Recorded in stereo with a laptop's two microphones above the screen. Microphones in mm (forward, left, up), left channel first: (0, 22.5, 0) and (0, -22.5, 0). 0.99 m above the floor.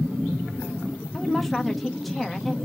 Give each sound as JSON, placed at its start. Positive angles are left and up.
{"t": 1.1, "sound": "a woman speaking", "side_deg": 0, "distance_m": 1.2}